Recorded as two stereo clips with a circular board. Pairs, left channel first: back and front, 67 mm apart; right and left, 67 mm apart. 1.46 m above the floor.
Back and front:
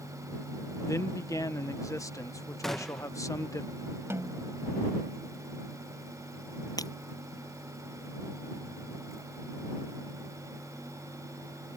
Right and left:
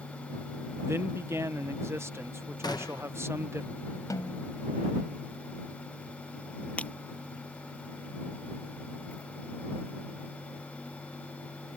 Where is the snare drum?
50° right.